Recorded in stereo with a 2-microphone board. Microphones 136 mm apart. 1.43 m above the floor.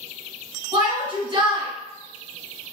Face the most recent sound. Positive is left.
turn(degrees=-35)  # may be behind; listen again after turning